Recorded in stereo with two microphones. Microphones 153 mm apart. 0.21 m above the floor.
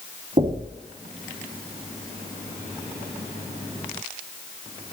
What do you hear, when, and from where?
0.4 s knocking: 50° right (ahead or behind), 1.6 m